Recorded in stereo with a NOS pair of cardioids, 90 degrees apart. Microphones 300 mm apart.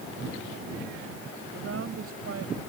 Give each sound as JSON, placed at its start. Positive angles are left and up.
{"t": 1.5, "sound": "a woman speaking", "azimuth_deg": -50}